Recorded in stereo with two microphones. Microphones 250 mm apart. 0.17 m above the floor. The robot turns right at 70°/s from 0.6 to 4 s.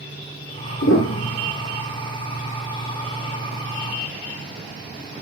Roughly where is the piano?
Behind left.